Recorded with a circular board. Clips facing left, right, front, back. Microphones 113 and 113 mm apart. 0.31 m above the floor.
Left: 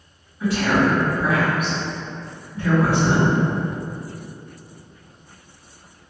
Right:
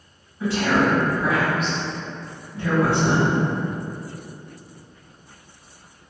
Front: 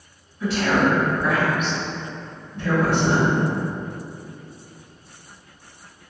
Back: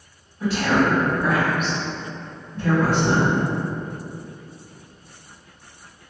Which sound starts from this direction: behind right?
A woman speaking, at 0.4 s.